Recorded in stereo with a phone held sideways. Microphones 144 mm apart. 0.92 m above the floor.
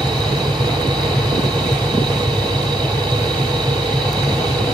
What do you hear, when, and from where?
0.0 s a machine running: 30° right (ahead or behind), 0.8 m